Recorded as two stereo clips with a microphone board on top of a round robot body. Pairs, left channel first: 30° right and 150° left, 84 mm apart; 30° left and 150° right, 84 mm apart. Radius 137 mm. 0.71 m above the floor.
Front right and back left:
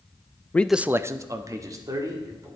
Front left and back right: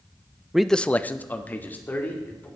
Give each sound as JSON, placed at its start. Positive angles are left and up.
{"t": 0.5, "sound": "a man speaking", "azimuth_deg": -70, "distance_m": 0.5}